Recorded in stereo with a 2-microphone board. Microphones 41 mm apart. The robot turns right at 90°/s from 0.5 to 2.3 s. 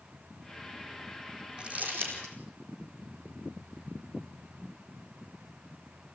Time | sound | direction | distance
1.6 | crumpling | 20° right (ahead or behind) | 4.5 m